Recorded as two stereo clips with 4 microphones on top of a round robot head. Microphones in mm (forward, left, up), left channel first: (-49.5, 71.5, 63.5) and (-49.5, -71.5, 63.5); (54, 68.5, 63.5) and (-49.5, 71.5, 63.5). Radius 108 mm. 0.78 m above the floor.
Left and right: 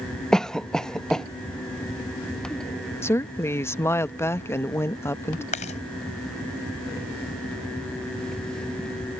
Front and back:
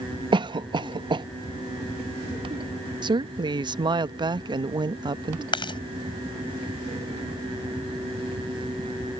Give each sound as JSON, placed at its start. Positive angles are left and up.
{"t": 0.3, "sound": "a cough", "azimuth_deg": 175}
{"t": 3.0, "sound": "a woman speaking", "azimuth_deg": 160}
{"t": 5.5, "sound": "chewing", "azimuth_deg": 40}